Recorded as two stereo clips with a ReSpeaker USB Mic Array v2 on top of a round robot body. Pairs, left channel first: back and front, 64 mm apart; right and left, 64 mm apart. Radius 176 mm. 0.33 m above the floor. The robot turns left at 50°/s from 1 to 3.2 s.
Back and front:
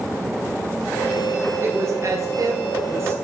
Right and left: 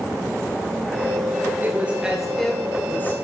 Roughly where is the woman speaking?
Ahead left.